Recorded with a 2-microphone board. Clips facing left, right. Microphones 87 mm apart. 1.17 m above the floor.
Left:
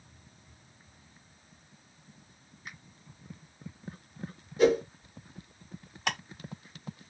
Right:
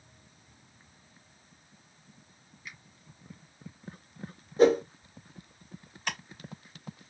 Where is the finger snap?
50° left (ahead or behind), 1.5 m.